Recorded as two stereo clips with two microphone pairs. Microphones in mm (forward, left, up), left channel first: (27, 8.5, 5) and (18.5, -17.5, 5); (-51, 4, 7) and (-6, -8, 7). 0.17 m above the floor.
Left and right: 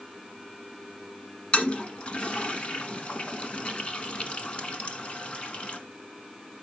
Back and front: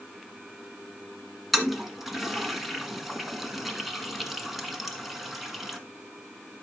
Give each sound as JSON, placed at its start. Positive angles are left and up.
{"t": 1.5, "sound": "a toilet flushing", "azimuth_deg": 75, "distance_m": 1.3}